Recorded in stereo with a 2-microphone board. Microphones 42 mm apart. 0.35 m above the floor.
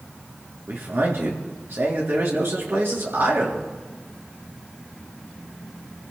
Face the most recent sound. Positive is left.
turn(degrees=-70)  # may be behind; listen again after turning